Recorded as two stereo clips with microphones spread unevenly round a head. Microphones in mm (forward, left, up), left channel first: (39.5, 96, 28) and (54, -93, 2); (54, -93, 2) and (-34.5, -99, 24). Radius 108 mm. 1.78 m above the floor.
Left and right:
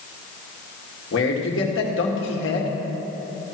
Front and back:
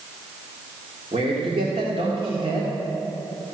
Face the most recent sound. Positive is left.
turn(degrees=130)